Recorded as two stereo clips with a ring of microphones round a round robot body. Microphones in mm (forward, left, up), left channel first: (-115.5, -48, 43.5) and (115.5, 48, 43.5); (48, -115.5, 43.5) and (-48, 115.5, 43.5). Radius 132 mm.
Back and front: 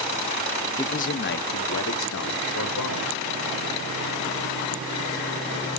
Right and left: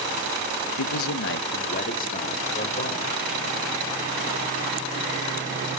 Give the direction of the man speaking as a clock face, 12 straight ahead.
3 o'clock.